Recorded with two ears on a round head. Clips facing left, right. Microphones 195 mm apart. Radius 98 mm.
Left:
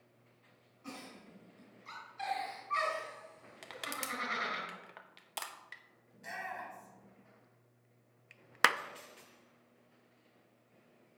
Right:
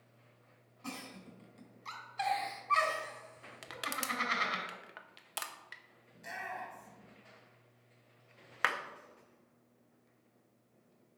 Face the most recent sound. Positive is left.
turn(degrees=55)  # may be behind; listen again after turning